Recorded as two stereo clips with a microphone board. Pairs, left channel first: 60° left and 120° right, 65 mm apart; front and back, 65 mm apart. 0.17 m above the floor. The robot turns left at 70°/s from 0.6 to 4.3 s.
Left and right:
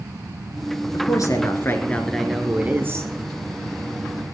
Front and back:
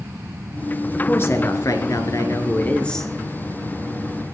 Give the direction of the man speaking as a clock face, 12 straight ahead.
10 o'clock.